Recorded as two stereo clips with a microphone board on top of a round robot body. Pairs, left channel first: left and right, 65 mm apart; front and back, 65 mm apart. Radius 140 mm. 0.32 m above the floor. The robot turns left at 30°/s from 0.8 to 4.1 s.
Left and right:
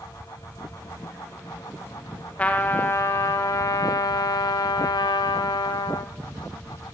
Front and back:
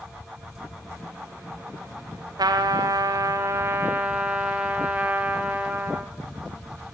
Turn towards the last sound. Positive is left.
turn(degrees=110)